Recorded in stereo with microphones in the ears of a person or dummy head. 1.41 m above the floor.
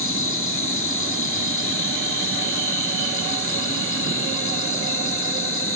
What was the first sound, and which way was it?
An insect, 60° left (ahead or behind).